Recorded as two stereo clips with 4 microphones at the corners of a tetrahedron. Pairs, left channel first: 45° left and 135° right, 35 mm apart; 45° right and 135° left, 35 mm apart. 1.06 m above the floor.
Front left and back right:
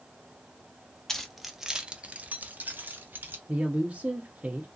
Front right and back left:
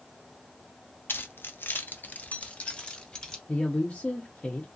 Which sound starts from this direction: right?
A woman speaking, at 3.5 s.